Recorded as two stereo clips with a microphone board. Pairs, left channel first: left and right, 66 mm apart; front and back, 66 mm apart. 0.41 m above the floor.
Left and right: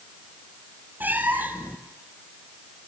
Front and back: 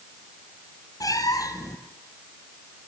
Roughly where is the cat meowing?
Ahead right.